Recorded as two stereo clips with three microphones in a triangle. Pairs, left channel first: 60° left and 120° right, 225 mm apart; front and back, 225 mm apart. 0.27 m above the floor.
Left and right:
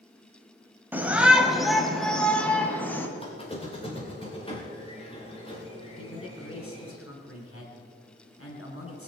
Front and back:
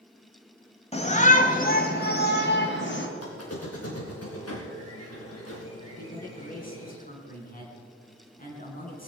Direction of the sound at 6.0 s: 50° left.